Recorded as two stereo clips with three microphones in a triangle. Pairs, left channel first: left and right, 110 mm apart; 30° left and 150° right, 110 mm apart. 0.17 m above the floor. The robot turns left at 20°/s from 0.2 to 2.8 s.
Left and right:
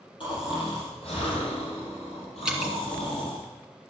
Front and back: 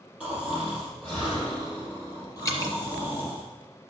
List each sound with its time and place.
0.2 s snoring: 130° left, 5.5 m; by 3.5 s 80° left, 5.5 m
2.5 s dripping: 10° right, 2 m; by 2.7 s 15° right, 2 m